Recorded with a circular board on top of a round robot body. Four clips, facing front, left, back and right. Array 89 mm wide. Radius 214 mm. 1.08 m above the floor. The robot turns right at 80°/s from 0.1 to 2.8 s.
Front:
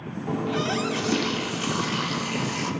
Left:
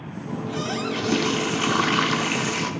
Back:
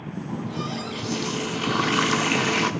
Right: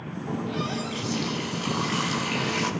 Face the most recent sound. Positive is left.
turn(degrees=-165)